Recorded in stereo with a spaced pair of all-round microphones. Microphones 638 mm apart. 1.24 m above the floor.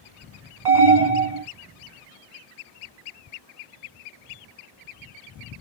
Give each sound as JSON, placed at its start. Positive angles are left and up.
{"t": 0.7, "sound": "an alarm", "side_deg": -40, "distance_m": 1.4}